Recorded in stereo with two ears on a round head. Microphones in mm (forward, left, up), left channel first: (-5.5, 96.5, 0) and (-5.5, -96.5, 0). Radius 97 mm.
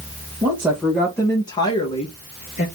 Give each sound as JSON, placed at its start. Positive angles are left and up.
{"t": 0.4, "sound": "a woman speaking", "side_deg": -10, "distance_m": 1.5}